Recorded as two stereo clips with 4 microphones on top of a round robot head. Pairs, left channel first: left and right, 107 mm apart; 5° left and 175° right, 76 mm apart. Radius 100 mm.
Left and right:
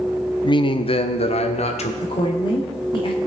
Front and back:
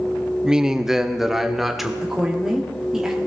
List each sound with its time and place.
0.4 s a man speaking: 105° left, 0.8 m; by 1.9 s 95° left, 1.6 m
2.0 s a woman speaking: 105° left, 1.7 m